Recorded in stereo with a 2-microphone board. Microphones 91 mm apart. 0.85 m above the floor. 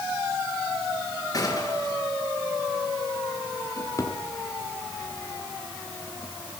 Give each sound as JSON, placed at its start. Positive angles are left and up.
{"t": 1.3, "sound": "a gunshot", "side_deg": 40, "distance_m": 6.5}
{"t": 3.8, "sound": "a drawer", "side_deg": 35, "distance_m": 3.5}